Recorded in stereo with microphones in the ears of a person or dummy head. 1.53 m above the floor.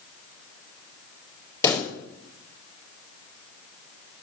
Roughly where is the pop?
Centre.